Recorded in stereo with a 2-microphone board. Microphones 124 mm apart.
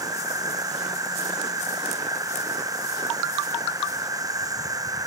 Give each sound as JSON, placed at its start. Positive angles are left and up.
{"t": 0.0, "sound": "an insect", "side_deg": -30}